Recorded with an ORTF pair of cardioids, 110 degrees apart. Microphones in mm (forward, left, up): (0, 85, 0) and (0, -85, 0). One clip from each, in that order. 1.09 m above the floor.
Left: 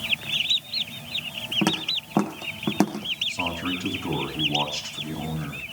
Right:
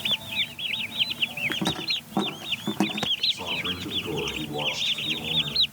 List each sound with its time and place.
1.6 s footsteps: 40° left, 4.5 m; by 3.1 s 30° left, 3.5 m
3.3 s a man speaking: 65° left, 8 m